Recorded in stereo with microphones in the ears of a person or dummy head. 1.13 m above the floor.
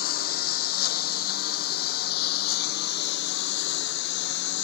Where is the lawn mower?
60° left (ahead or behind); by 4.6 s 70° left (ahead or behind).